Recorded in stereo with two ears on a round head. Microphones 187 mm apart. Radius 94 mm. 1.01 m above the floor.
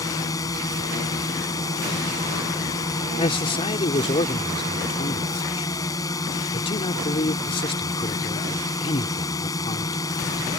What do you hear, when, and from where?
0.0 s a drone: 15° left (ahead or behind)
3.2 s a man speaking: 25° left (ahead or behind)